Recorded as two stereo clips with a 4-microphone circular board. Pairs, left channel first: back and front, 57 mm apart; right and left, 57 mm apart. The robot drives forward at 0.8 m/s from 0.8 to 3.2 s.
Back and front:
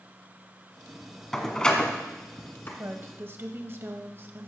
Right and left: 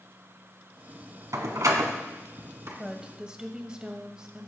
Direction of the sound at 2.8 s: 15° left.